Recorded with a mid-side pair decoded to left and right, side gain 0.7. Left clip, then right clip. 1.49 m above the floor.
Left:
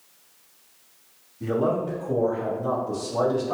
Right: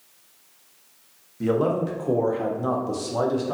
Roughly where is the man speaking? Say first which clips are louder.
Right 2 dB; ahead right.